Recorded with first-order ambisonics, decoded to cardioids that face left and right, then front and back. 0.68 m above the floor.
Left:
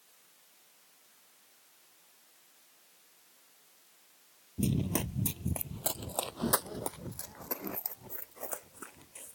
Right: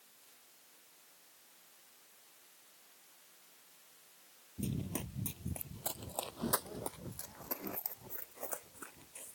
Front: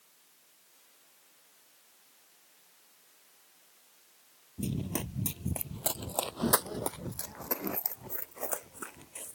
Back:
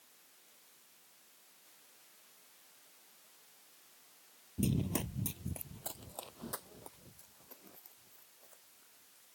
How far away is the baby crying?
No baby crying in this recording.